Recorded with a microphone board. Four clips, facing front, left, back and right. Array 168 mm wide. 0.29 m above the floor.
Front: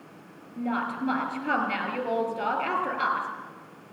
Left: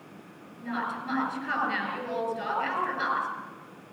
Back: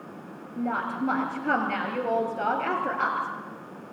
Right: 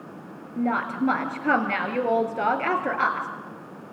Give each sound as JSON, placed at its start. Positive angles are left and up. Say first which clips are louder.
{"t": 0.6, "sound": "a woman speaking", "louder": "right 8 dB, back 1 dB", "azimuth_deg": -100, "distance_m": 5.0}